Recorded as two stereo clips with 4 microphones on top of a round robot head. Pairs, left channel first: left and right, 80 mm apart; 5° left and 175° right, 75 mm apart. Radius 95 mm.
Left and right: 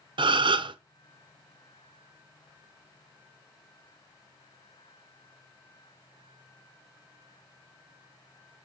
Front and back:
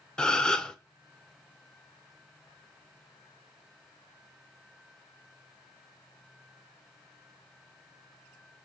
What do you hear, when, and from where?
0.2 s a gasp: 75° right, 0.7 m